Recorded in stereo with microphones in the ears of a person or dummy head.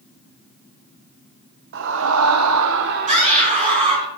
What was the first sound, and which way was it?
A scream, 55° right (ahead or behind).